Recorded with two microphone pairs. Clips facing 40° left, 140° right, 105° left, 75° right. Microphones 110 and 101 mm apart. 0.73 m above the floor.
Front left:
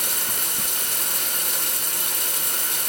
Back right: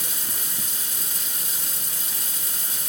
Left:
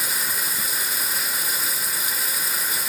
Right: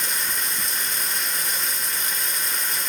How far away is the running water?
About 1.7 m.